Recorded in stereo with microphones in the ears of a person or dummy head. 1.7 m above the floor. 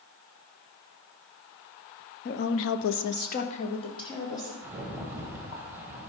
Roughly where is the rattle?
Centre.